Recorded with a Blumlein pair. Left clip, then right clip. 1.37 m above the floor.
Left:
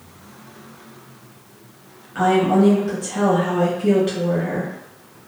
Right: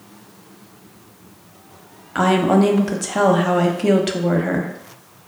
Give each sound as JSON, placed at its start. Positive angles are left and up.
{"t": 2.1, "sound": "a woman speaking", "azimuth_deg": -60, "distance_m": 0.6}